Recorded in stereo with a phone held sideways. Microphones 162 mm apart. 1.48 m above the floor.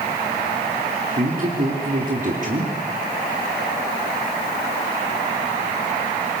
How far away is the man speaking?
About 3.5 m.